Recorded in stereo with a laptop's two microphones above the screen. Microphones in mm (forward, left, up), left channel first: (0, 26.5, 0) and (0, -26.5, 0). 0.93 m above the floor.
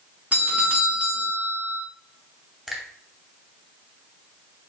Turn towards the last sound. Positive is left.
turn(degrees=-10)  # may be behind; listen again after turning